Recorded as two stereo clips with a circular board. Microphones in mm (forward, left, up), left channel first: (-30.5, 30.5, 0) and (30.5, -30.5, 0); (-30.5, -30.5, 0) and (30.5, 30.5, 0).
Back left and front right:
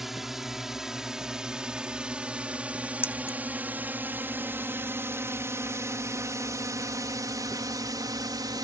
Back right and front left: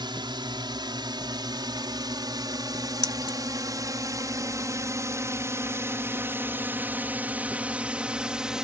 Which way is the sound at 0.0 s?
40° left.